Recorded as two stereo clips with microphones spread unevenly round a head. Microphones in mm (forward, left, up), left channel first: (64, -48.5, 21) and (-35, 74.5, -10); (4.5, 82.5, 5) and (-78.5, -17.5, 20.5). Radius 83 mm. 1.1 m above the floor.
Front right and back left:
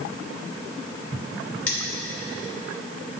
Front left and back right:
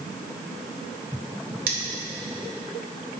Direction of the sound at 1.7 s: 130° right.